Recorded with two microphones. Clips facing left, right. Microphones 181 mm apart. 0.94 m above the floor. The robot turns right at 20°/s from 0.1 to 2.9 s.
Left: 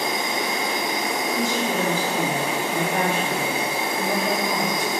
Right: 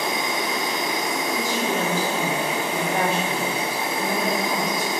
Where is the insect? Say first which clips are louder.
Even; 40° left, 1.4 m; by 5.0 s 95° left, 1.4 m.